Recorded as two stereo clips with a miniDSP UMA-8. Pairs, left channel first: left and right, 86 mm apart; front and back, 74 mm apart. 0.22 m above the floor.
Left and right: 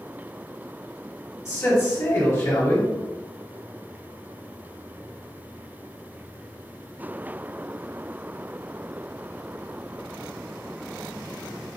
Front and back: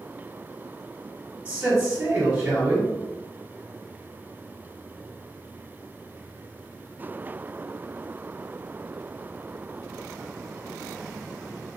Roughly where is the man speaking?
Behind left.